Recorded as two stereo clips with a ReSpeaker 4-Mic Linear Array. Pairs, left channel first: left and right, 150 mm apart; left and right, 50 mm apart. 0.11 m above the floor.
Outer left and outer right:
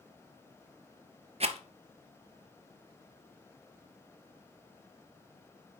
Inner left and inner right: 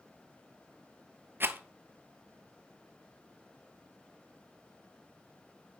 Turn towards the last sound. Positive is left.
turn(degrees=-50)  # may be behind; listen again after turning